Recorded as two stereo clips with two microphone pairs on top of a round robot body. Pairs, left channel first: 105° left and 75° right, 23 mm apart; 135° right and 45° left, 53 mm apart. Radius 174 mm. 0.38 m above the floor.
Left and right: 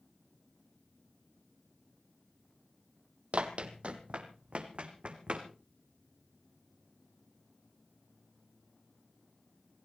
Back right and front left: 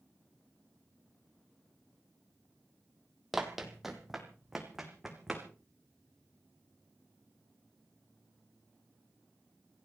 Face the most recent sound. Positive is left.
turn(degrees=-40)